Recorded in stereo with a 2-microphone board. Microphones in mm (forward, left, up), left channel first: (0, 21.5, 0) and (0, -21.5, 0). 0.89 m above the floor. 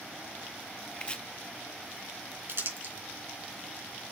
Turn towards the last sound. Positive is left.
turn(degrees=-60)  # may be behind; listen again after turning